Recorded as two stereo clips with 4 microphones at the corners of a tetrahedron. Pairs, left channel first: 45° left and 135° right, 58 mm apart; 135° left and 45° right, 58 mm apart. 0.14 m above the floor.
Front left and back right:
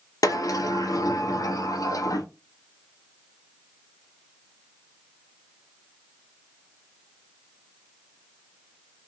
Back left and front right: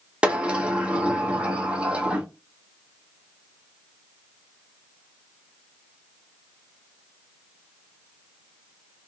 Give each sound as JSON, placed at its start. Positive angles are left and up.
{"t": 0.2, "sound": "a sliding door", "azimuth_deg": 30, "distance_m": 0.6}